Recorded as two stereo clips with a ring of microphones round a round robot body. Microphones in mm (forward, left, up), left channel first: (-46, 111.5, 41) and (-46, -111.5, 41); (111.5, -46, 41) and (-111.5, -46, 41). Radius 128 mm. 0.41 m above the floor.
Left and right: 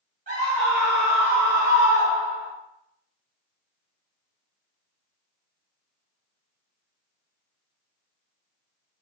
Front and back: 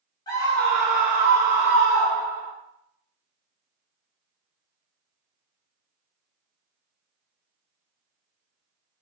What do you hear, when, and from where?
0.3 s a scream: 60° right, 1.2 m; by 2.5 s 175° right, 1.3 m